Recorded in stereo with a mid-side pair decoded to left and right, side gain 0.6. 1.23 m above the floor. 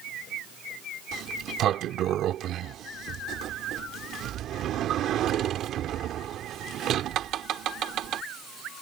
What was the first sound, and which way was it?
A sliding door, 55° right.